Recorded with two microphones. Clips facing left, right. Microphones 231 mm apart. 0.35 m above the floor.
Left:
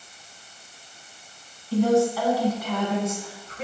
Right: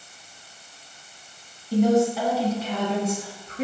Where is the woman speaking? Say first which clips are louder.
Right 1 dB; 15° right (ahead or behind), 3.5 m; by 3.6 s 40° right (ahead or behind), 4 m.